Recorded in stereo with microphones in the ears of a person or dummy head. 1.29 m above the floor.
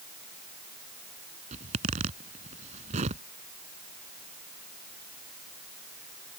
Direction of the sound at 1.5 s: 30° right (ahead or behind).